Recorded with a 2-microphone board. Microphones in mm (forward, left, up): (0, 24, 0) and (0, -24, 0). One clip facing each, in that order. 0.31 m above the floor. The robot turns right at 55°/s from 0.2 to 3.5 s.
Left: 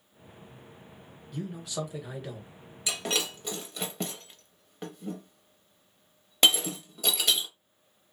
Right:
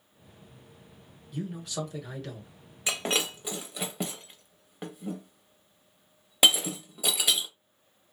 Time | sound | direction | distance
1.3 | a man speaking | 10° right (ahead or behind) | 0.9 m
2.9 | breaking glass | 35° right (ahead or behind) | 0.6 m